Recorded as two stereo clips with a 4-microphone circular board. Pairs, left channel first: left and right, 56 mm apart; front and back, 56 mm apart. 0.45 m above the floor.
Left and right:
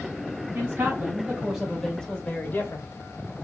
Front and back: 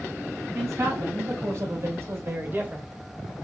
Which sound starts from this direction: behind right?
A man speaking, at 0.5 s.